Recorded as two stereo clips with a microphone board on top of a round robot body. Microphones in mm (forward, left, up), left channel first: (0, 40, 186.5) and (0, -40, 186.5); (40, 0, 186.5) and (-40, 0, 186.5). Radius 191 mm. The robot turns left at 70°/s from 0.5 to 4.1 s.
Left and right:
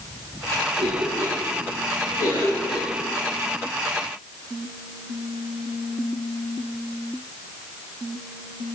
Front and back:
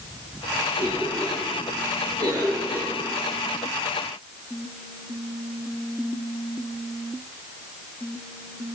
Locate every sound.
0.8 s a cough: 125° right, 4.5 m; by 2.9 s 85° left, 4.5 m